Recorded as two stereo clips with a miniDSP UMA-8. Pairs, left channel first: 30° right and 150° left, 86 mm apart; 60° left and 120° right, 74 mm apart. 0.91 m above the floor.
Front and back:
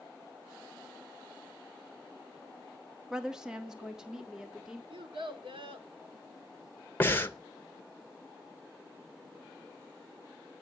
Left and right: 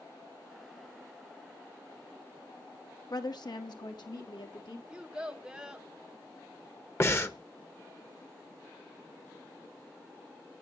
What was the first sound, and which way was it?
A woman speaking, 70° left.